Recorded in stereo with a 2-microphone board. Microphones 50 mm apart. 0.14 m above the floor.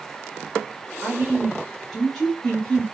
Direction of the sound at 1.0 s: Centre (ahead or behind).